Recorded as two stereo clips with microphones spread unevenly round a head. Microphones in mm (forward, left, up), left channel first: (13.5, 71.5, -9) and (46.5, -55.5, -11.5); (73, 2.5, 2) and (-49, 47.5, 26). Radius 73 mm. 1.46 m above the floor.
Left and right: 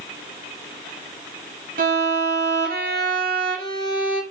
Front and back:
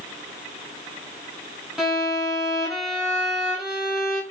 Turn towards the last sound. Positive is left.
turn(degrees=-110)